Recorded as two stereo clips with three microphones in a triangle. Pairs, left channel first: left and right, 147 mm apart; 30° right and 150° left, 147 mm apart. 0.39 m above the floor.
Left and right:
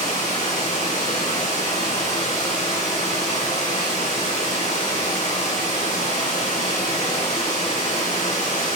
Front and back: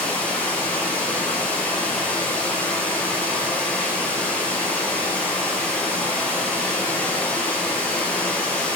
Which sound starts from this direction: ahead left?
Running water, at 0.0 s.